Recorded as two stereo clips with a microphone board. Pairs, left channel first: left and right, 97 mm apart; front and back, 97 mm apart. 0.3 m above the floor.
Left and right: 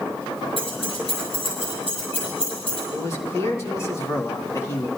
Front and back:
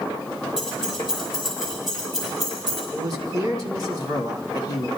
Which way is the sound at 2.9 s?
140° left.